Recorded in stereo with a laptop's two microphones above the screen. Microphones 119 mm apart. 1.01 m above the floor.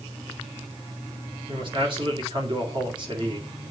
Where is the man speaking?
45° right (ahead or behind), 2 m.